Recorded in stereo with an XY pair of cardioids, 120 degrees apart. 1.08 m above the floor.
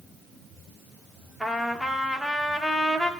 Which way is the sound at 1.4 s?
Straight ahead.